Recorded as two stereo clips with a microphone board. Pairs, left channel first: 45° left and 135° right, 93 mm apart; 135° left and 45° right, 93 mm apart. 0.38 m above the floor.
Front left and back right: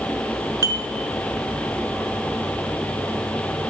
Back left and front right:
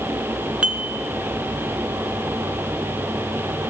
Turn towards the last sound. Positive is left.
turn(degrees=-115)